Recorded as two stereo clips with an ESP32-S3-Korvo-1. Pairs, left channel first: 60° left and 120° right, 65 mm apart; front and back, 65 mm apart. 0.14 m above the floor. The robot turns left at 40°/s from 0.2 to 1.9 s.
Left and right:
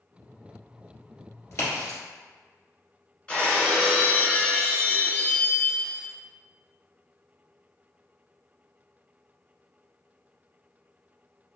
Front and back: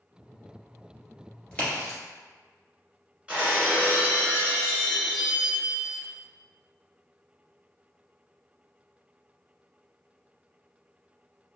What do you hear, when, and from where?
1.5 s a crack: 70° left, 1.8 m; by 2.0 s 55° left, 1.8 m
3.3 s breaking glass: 120° left, 1.1 m